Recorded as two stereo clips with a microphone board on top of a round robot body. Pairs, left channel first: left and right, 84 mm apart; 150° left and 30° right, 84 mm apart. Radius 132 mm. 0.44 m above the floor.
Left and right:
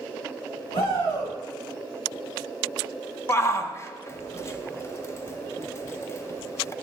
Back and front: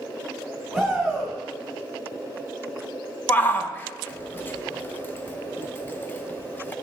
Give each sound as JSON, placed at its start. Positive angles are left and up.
{"t": 0.7, "sound": "a shout", "azimuth_deg": 65, "distance_m": 3.5}
{"t": 3.3, "sound": "a shout", "azimuth_deg": 105, "distance_m": 0.8}